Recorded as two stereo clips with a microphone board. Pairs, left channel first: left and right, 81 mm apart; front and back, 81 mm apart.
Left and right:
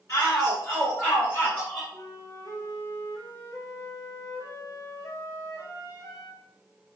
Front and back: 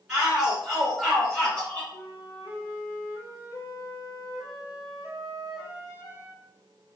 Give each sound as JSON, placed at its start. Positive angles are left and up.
{"t": 0.1, "sound": "a shout", "azimuth_deg": 105, "distance_m": 1.9}
{"t": 1.9, "sound": "a flute", "azimuth_deg": 115, "distance_m": 2.0}